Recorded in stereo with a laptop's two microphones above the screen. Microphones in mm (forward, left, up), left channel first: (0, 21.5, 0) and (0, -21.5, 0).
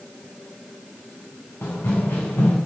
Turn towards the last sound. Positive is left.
turn(degrees=65)  # may be behind; listen again after turning